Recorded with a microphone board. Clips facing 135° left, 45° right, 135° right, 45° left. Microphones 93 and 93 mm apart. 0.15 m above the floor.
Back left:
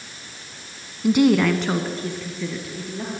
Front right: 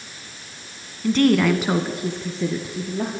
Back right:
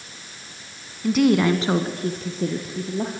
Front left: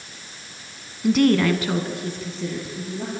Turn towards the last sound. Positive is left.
turn(degrees=-105)